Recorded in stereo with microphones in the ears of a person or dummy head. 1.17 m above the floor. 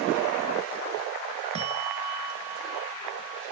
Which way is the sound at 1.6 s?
30° right (ahead or behind).